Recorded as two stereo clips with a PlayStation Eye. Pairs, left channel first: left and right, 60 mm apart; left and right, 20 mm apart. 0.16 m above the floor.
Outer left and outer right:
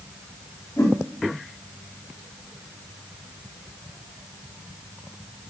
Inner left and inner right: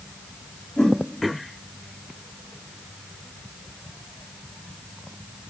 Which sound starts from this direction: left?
A whoosh, at 0.8 s.